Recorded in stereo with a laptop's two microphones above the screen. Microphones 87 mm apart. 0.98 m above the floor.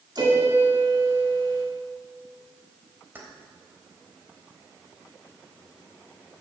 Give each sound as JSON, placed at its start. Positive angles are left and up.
{"t": 0.1, "sound": "a piano", "side_deg": -55, "distance_m": 3.0}
{"t": 3.1, "sound": "keys jangling", "side_deg": -25, "distance_m": 3.5}